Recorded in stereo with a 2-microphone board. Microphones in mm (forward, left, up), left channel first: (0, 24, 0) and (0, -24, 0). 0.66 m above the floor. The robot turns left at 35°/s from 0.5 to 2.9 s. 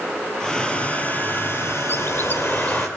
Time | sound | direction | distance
0.4 | a hair dryer | 165° left | 4.5 m
1.9 | a bird | 60° left | 2.5 m